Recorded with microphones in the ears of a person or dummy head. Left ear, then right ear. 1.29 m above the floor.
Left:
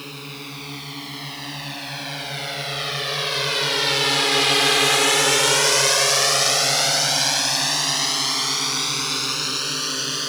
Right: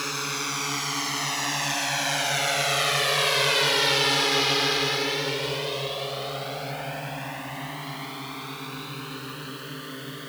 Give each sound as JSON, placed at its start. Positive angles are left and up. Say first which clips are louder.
{"t": 0.0, "sound": "a drone", "louder": "right 6 dB", "side_deg": -55}